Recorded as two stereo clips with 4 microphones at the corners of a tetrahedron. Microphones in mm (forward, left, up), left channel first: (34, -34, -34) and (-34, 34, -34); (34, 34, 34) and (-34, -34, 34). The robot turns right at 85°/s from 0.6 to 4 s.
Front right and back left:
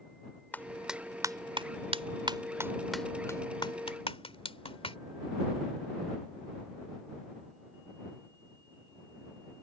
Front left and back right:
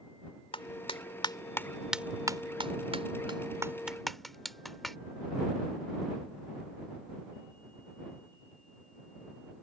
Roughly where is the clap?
Ahead left.